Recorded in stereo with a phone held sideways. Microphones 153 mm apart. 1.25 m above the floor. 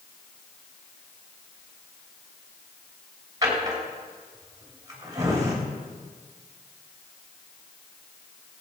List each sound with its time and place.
3.4 s a drawer: 25° right (ahead or behind), 3 m